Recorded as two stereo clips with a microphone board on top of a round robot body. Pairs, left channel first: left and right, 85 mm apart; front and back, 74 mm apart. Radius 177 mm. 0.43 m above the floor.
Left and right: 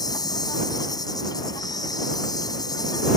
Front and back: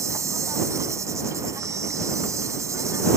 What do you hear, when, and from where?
0.0 s an insect: 130° left